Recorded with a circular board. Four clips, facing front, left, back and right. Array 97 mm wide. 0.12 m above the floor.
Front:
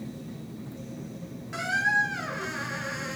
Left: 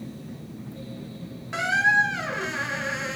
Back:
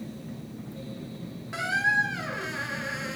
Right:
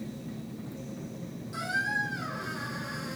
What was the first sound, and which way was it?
A squeak, 100° left.